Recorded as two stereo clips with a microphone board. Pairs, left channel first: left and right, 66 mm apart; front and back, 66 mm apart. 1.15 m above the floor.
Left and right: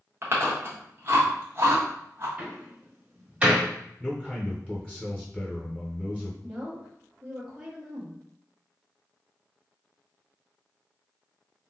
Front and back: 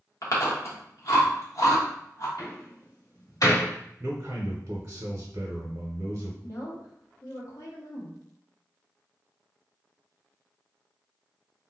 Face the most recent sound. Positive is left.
turn(degrees=-10)